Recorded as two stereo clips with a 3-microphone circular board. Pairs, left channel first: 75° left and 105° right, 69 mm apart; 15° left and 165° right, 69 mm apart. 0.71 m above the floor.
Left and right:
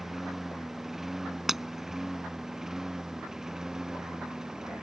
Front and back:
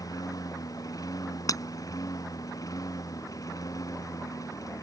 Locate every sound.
0.0 s a lawn mower: 20° right; by 4.8 s 25° right
1.5 s breaking glass: 20° right